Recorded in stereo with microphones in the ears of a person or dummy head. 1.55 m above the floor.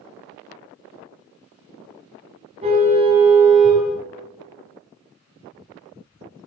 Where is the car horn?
35° right (ahead or behind), 6.5 m.